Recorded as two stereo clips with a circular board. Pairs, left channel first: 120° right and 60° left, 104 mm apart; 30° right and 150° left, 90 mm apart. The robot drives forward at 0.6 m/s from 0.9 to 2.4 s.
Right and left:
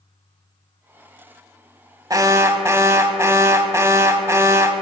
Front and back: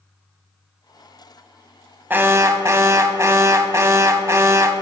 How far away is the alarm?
About 0.8 m.